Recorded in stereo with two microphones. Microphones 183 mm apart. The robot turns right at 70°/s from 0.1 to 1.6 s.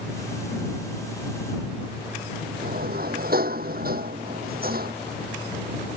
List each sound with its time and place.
2.6 s a sliding door: 55° right (ahead or behind)